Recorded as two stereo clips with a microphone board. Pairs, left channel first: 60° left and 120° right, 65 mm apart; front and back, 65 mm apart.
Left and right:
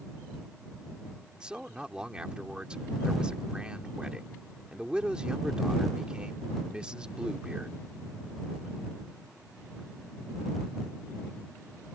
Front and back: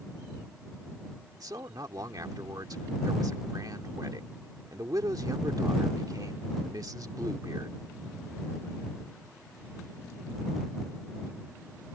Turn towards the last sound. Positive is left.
turn(degrees=165)